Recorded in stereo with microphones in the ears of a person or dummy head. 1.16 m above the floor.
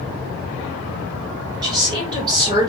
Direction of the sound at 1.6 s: 25° right (ahead or behind).